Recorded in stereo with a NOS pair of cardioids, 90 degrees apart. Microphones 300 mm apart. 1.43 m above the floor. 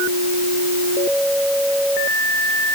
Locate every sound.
Only background noise.